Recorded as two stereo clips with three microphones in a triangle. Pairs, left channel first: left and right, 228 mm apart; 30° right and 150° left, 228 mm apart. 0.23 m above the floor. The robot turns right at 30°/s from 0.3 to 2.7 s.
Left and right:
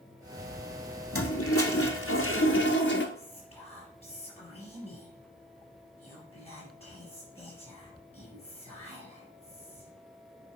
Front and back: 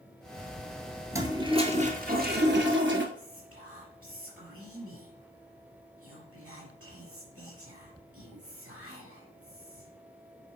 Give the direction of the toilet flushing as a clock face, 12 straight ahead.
10 o'clock.